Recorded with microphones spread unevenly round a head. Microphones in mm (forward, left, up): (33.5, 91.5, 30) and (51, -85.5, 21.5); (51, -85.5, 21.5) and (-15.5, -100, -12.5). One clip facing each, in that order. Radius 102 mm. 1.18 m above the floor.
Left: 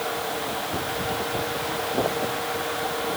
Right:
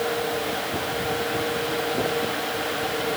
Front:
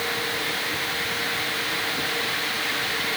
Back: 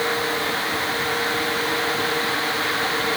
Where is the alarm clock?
I don't hear an alarm clock.